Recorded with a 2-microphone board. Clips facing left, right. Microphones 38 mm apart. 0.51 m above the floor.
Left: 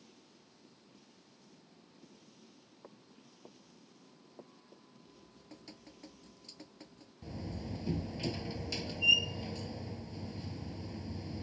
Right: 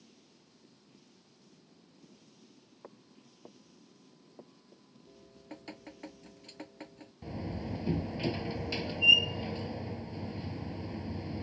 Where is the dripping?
45° right (ahead or behind).